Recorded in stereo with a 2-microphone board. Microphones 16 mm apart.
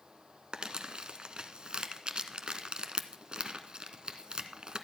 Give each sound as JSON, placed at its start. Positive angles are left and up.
{"t": 0.5, "sound": "crumpling", "side_deg": -70, "distance_m": 0.8}